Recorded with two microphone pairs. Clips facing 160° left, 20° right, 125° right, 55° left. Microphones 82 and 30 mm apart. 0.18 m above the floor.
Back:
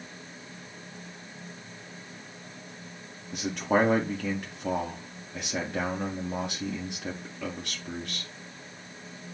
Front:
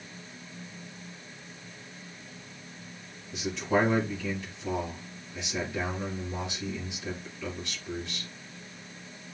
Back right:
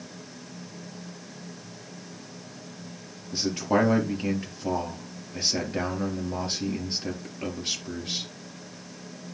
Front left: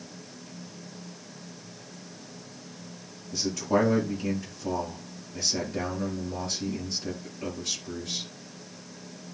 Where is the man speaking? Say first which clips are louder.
Back 2 dB, back right 1 dB; 175° right, 4 m.